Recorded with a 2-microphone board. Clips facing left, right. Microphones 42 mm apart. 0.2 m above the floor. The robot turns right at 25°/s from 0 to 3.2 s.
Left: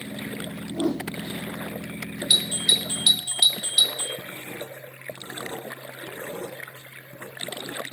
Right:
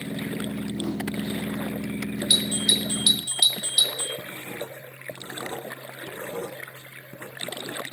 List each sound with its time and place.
0.7 s a whoosh: 80° left, 2.5 m; by 1.1 s 85° left, 2.5 m
2.3 s a doorbell: 20° left (ahead or behind), 1.7 m
4.2 s writing: 30° right (ahead or behind), 1.6 m